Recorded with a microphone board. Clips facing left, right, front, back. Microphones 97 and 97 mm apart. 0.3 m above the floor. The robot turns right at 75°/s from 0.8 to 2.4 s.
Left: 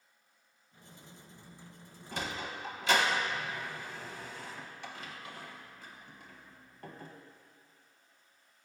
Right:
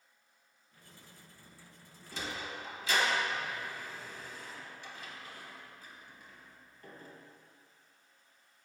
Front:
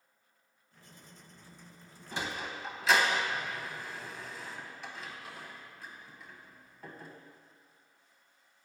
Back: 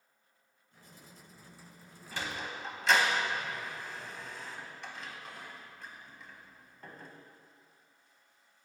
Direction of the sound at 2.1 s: 65° left.